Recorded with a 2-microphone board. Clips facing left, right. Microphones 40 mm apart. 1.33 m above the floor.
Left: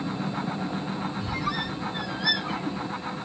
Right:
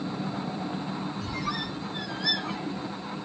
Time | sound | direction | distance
1.2 | a squeak | 10° left (ahead or behind) | 0.6 m